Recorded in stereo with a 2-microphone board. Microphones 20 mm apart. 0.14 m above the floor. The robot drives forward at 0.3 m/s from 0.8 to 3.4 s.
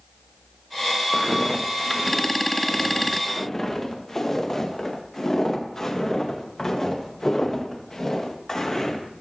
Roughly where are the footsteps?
Centre.